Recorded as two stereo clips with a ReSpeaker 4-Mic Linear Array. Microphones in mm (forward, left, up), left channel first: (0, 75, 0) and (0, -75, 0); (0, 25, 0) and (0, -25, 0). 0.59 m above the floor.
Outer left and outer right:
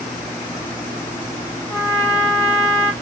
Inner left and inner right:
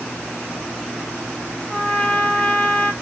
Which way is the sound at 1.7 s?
25° left (ahead or behind).